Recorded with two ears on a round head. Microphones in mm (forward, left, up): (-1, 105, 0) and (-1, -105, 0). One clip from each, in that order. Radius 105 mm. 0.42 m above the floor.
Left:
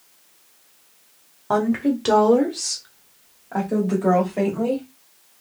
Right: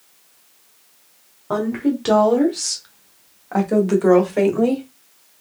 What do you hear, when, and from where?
1.5 s a woman speaking: 25° left (ahead or behind), 1.0 m; by 4.8 s 55° right (ahead or behind), 1.7 m